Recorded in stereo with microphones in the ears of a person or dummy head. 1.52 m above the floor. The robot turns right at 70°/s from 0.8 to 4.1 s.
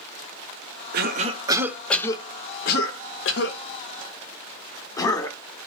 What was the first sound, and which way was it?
A cough, 60° right (ahead or behind).